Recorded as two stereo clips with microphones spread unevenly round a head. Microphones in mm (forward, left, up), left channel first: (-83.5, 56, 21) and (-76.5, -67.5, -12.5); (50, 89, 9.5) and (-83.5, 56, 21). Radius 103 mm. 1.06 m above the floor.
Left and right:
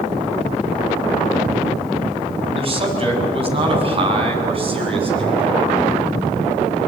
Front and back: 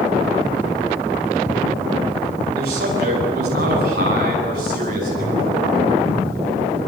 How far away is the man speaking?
About 6.5 m.